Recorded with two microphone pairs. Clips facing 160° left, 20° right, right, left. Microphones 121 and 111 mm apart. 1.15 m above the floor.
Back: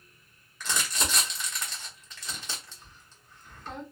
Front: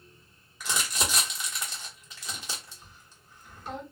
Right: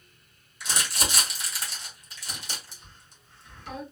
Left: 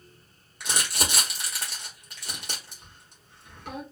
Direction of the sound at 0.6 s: 60° left.